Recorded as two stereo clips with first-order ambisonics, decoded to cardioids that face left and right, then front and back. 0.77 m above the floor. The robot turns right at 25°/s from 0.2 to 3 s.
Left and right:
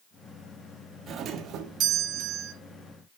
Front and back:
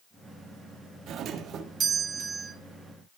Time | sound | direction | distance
1.1 | a doorbell | 140° right | 1.4 m